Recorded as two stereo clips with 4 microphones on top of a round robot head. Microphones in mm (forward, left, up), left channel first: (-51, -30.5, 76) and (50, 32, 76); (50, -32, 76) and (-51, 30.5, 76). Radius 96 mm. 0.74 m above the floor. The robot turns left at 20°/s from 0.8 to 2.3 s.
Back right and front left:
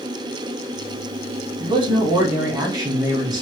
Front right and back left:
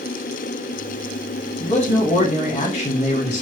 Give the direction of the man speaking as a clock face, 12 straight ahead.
12 o'clock.